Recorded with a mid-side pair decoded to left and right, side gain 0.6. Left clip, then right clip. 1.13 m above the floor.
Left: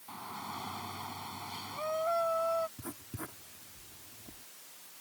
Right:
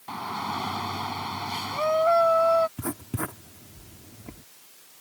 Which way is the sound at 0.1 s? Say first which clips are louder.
Right 11 dB; 50° right.